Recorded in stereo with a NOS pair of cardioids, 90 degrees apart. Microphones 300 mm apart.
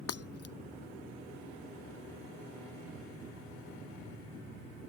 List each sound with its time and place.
0.1 s breaking glass: 55° left